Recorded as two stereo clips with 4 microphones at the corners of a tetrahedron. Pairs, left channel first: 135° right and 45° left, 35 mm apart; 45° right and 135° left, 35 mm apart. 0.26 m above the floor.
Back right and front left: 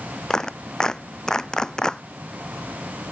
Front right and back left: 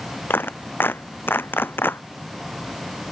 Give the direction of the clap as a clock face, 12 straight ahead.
2 o'clock.